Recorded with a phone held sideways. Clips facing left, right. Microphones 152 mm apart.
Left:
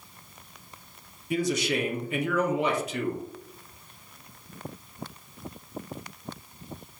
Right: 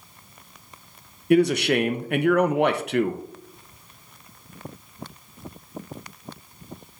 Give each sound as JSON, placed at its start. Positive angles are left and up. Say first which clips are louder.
{"t": 1.3, "sound": "a man speaking", "louder": "right 8 dB", "side_deg": -65, "distance_m": 0.6}